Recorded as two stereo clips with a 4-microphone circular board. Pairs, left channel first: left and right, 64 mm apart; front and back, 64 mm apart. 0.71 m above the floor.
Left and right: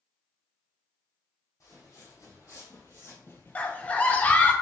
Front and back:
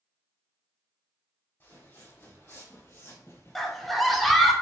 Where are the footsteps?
55° left, 2 m; by 4.5 s 15° left, 1.0 m.